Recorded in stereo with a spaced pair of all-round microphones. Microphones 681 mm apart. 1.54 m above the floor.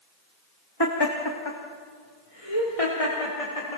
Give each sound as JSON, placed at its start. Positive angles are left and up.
{"t": 0.8, "sound": "laughter", "side_deg": 35, "distance_m": 2.5}